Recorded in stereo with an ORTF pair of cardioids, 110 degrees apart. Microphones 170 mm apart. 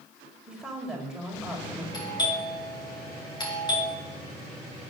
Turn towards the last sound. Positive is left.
turn(degrees=25)